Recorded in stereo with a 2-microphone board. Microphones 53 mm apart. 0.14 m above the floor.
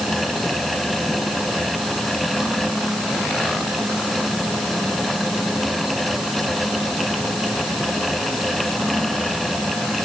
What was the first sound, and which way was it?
Only background noise.